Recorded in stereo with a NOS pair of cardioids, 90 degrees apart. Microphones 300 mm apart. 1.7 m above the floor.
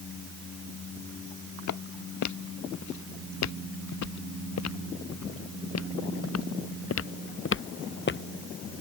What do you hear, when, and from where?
1.7 s footsteps: 65° left; by 8.2 s 35° left